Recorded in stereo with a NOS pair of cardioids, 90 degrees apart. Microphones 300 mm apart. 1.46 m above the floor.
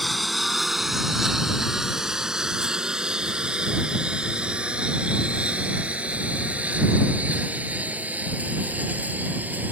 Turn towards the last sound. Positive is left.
turn(degrees=-5)